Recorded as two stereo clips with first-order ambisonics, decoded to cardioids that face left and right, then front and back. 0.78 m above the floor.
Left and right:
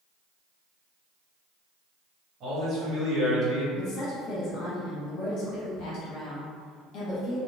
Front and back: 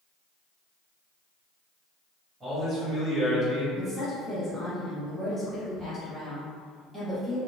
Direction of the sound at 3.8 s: 95° left.